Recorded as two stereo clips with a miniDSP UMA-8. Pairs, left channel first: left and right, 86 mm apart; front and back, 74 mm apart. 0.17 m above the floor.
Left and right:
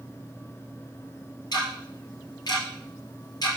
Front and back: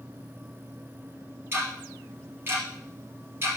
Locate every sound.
1.5 s ticking: 125° left, 3 m